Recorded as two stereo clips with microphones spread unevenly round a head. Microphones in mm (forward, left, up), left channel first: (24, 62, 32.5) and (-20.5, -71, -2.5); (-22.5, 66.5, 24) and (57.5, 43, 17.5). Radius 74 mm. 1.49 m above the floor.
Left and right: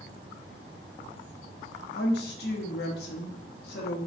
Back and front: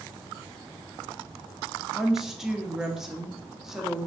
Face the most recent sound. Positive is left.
turn(degrees=70)